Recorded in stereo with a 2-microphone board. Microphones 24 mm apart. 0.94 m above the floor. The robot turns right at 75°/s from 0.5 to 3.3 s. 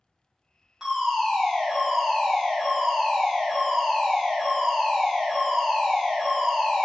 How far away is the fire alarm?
About 1.5 m.